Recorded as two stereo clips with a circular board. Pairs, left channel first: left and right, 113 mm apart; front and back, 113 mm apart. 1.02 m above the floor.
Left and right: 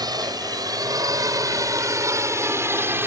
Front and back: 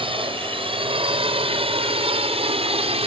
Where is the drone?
145° right; by 3.1 s 160° right.